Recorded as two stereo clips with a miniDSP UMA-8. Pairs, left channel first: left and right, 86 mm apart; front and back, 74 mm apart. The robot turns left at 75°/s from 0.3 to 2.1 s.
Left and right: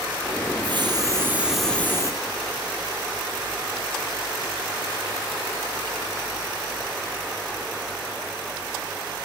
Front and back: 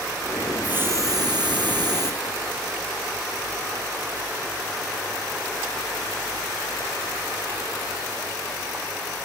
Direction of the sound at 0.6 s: 105° right.